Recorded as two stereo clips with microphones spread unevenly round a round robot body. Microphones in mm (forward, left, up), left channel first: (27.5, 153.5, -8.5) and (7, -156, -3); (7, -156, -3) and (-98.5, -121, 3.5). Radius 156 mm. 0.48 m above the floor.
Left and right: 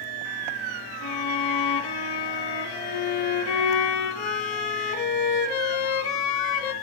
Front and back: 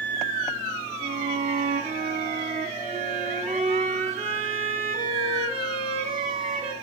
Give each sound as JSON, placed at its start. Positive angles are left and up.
{"t": 1.0, "sound": "a violin", "azimuth_deg": 105, "distance_m": 1.3}